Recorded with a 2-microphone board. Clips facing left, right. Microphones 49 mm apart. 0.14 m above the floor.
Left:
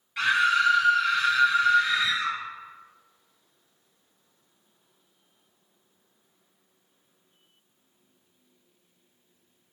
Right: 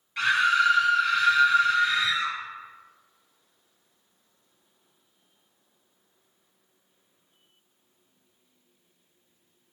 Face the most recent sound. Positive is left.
turn(degrees=0)  # may be behind; listen again after turning